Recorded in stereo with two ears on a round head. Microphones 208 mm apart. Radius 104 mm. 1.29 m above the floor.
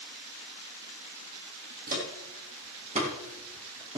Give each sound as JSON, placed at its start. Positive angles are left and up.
{"t": 1.9, "sound": "footsteps", "side_deg": -40, "distance_m": 3.0}